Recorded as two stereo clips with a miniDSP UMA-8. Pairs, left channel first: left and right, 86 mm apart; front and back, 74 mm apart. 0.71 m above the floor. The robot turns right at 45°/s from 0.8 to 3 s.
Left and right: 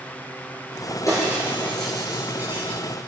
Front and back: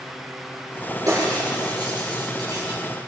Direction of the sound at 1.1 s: 140° left.